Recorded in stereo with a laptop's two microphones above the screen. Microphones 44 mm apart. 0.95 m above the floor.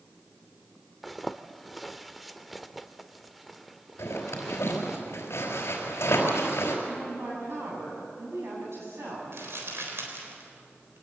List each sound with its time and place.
1.0 s a zipper: centre (ahead or behind), 0.7 m
4.0 s a zipper: 70° left (ahead or behind), 4 m
6.9 s a woman speaking: 70° right (ahead or behind), 8.5 m
9.3 s crumpling: 70° right (ahead or behind), 3.5 m